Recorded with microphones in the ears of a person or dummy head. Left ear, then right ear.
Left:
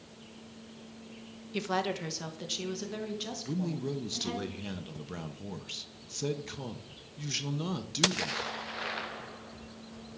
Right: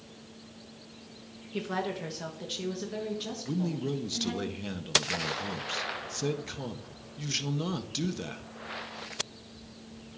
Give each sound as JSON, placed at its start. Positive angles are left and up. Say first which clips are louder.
{"t": 1.5, "sound": "a woman speaking", "louder": "left 1 dB", "side_deg": 20, "distance_m": 0.8}
{"t": 3.5, "sound": "a man speaking", "louder": "right 5 dB", "side_deg": -5, "distance_m": 0.6}